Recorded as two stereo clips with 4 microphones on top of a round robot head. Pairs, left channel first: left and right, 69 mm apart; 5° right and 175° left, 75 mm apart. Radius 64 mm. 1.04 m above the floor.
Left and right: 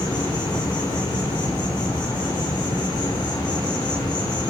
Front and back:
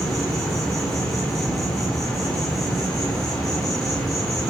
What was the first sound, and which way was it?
An insect, 80° left.